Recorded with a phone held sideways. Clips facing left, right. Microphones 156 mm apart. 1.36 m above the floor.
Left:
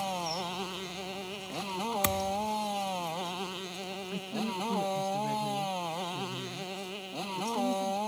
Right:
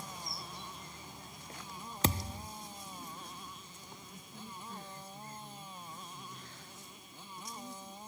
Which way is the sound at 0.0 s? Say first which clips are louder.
Left 13 dB; 85° left.